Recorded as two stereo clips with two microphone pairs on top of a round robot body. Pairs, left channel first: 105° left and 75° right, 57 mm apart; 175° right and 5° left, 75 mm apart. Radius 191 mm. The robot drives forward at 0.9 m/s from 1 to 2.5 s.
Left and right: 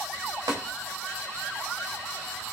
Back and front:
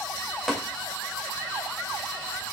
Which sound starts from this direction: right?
Tapping, at 0.5 s.